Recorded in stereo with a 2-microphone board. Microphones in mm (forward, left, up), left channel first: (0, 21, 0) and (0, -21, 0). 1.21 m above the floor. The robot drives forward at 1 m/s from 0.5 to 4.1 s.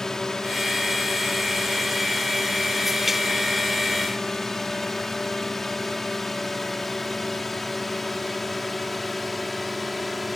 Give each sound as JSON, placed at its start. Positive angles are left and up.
{"t": 0.0, "sound": "a drone", "side_deg": 10}